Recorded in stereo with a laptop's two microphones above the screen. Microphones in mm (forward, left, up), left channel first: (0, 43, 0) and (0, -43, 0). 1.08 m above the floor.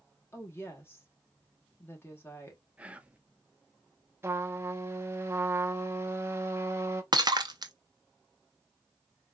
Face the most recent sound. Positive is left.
turn(degrees=-45)  # may be behind; listen again after turning